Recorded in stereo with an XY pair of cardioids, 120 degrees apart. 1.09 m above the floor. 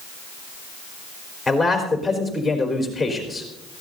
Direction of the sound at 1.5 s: 5° left.